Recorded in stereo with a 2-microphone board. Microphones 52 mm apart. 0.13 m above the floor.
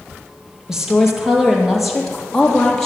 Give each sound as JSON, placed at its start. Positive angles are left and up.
{"t": 0.7, "sound": "a woman speaking", "side_deg": -10, "distance_m": 3.5}